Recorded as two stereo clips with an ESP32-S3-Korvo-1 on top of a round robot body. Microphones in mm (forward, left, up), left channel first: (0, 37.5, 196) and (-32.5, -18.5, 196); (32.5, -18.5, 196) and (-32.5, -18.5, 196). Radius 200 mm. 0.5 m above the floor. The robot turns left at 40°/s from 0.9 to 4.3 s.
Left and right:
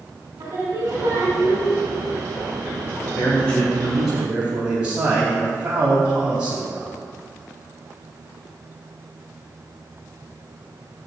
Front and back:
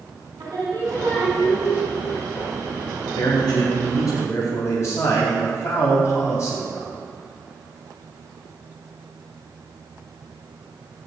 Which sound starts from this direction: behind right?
Singing, at 0.4 s.